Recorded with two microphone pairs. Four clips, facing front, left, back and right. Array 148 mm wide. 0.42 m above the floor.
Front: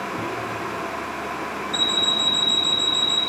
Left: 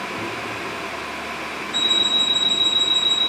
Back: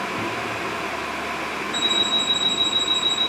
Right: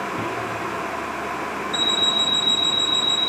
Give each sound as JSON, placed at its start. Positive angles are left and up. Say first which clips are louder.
{"t": 0.2, "sound": "a microwave", "louder": "right 2 dB, back 2 dB", "azimuth_deg": -120, "distance_m": 2.5}
{"t": 1.7, "sound": "an alarm clock", "louder": "right 2 dB, even", "azimuth_deg": -45, "distance_m": 1.3}